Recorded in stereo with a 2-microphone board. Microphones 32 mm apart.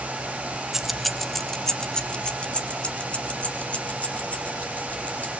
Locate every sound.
0.7 s keys jangling: 10° right (ahead or behind), 1.1 m; by 5.3 s 50° left (ahead or behind), 4 m